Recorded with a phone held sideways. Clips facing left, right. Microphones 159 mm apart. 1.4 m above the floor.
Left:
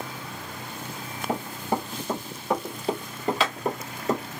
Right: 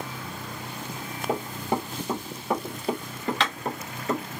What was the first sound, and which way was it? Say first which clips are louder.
Running footsteps: even; 25° right (ahead or behind).